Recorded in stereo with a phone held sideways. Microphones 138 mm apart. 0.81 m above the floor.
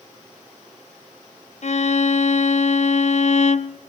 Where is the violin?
55° left (ahead or behind), 0.5 m.